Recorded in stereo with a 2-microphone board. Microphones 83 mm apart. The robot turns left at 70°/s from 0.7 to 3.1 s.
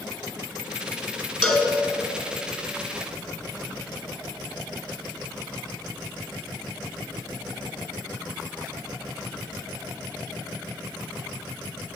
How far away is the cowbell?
About 1.9 m.